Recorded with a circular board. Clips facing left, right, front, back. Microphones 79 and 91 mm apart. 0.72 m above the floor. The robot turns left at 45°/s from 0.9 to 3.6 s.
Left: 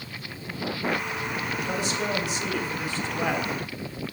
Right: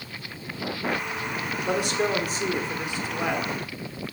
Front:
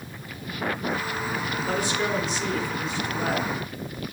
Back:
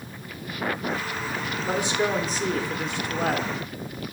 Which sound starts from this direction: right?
A man speaking, at 1.6 s.